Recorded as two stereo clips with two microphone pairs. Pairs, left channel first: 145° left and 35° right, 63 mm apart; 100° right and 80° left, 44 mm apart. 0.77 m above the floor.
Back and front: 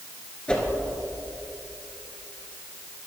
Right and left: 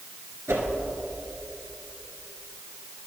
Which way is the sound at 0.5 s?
75° left.